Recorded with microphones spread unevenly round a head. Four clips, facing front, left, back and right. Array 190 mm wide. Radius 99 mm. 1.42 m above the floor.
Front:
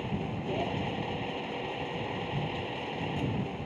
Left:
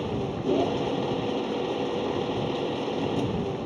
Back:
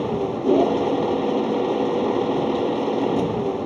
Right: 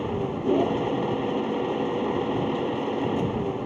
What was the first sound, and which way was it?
A machine running, 170° right.